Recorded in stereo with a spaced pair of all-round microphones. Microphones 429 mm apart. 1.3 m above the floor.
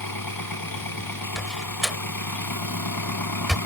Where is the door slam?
Centre (ahead or behind).